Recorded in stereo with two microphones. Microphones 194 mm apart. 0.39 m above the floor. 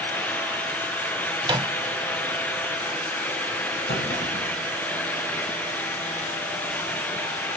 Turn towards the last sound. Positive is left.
turn(degrees=75)  # may be behind; listen again after turning